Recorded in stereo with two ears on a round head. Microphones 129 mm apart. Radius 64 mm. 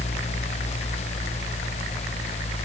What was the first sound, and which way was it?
Only background noise.